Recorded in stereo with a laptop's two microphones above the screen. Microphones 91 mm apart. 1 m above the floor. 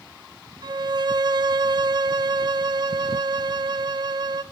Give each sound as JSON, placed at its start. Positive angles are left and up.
{"t": 0.6, "sound": "a violin", "side_deg": -50, "distance_m": 0.7}